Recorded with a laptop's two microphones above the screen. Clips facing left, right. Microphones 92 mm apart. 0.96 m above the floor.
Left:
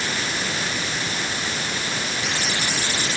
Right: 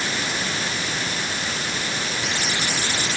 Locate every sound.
Only background noise.